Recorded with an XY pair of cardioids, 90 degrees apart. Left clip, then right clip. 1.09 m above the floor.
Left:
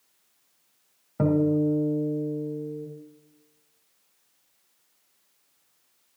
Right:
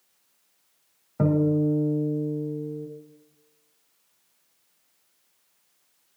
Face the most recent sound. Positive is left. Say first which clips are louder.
# even
turn(degrees=0)